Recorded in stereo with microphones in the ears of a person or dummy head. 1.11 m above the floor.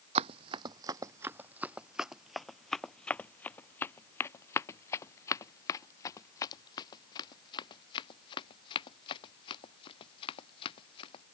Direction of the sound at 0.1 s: 35° right (ahead or behind).